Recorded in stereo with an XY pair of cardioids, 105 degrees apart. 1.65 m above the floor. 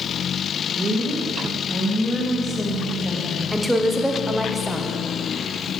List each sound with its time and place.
0.8 s a woman speaking: 40° right, 1.8 m; by 3.4 s 5° left, 1.8 m
3.5 s a woman speaking: 5° right, 0.9 m